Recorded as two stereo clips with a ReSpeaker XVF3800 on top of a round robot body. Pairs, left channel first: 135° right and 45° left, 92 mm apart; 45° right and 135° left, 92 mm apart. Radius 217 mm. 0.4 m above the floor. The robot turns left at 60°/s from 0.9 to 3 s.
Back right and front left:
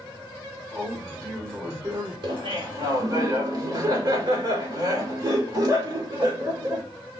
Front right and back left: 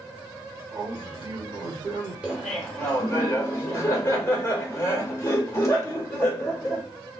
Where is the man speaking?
160° left, 2.5 m; by 2.1 s 90° left, 2.5 m.